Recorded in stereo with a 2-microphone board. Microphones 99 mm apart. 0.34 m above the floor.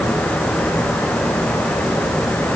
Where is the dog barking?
I don't hear a dog barking.